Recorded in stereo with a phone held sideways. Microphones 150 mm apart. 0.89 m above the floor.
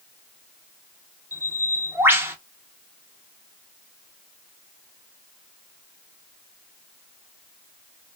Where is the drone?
No drone in this recording.